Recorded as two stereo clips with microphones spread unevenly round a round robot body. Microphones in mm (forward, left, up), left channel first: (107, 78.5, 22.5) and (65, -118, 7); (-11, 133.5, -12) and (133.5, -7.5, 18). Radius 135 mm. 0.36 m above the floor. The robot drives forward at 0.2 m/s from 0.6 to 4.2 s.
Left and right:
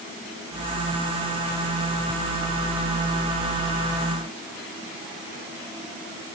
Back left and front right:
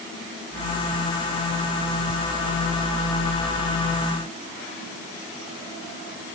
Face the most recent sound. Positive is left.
No sound to turn to.